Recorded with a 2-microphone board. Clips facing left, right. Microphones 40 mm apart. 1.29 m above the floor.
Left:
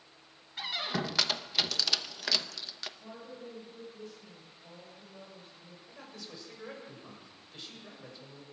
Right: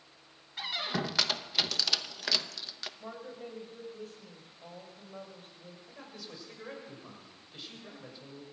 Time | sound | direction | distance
0.6 | a squeak | centre (ahead or behind) | 1.0 m
3.0 | a woman speaking | 50° right (ahead or behind) | 6 m
5.9 | a man speaking | 5° right (ahead or behind) | 6.5 m